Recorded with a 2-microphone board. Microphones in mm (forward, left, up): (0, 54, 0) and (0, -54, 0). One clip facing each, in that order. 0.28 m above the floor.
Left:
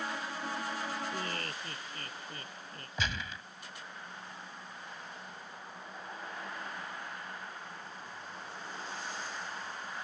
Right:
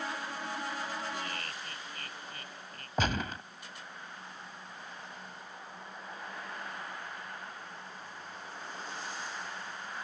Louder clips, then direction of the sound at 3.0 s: Right 6 dB; 50° right (ahead or behind).